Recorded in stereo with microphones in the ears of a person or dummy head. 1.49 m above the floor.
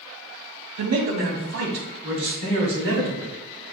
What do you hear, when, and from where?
0.8 s a man speaking: 85° right, 0.8 m; by 3.3 s 80° right, 2 m